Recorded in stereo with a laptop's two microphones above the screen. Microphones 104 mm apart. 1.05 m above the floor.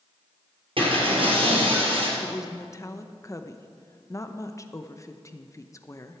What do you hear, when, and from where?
0.8 s breaking glass: 60° right (ahead or behind), 3.5 m
2.2 s a woman speaking: 30° left (ahead or behind), 0.7 m